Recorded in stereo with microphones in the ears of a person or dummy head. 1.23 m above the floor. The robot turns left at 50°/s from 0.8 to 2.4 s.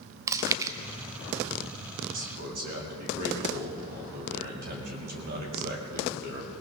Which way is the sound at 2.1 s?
65° right (ahead or behind).